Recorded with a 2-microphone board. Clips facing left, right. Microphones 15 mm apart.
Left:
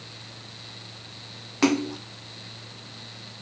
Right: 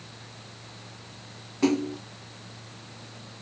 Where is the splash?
50° left (ahead or behind), 0.7 m.